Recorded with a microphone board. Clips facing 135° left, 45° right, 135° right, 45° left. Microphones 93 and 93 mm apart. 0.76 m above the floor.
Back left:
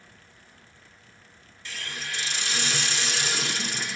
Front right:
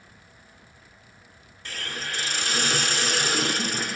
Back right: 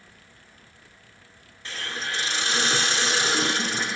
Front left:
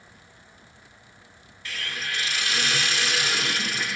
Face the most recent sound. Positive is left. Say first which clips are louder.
# front right 3 dB, back right 1 dB
turn(degrees=-75)